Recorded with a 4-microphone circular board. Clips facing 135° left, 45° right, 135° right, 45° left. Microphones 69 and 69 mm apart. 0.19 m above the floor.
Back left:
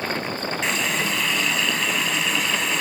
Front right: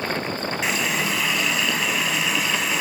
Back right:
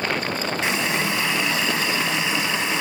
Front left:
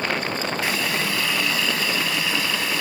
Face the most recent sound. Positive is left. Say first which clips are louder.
# even, back right 3 dB
turn(degrees=-125)